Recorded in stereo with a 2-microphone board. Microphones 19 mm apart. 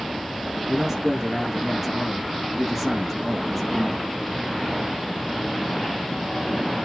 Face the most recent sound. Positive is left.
turn(degrees=0)  # may be behind; listen again after turning